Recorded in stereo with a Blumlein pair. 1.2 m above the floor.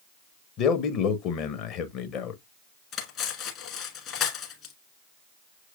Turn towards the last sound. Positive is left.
turn(degrees=30)